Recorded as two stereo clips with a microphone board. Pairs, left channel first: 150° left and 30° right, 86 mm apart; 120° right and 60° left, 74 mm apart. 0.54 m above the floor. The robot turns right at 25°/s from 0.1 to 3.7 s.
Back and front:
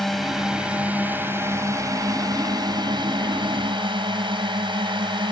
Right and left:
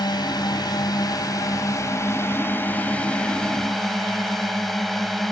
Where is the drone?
120° right; by 5.3 s 30° right.